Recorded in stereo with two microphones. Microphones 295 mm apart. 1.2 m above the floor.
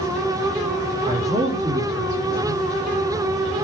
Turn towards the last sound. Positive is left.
turn(degrees=-15)  # may be behind; listen again after turning